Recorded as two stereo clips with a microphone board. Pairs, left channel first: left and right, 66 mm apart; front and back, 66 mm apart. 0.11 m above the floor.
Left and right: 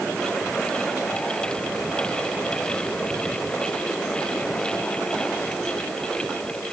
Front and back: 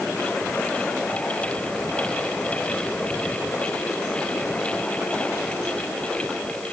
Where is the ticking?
No ticking in this recording.